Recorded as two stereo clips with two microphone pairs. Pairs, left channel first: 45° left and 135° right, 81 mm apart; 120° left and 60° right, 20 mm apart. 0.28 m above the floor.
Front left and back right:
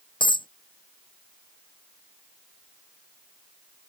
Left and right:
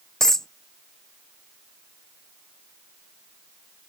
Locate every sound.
0.2 s a dropped coin: 55° left